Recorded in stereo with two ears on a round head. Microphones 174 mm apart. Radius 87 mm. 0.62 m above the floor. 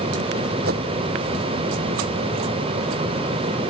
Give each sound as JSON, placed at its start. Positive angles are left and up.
{"t": 0.6, "sound": "a whoosh", "side_deg": -55}